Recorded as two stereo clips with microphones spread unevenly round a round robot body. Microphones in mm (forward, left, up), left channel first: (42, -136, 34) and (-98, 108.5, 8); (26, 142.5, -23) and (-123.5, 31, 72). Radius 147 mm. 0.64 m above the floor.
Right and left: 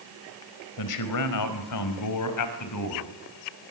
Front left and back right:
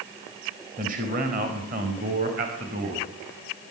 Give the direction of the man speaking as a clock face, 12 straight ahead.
3 o'clock.